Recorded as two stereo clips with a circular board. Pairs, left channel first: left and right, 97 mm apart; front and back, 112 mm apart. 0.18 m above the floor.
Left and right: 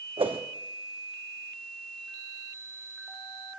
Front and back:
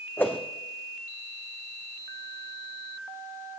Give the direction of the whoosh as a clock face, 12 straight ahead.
2 o'clock.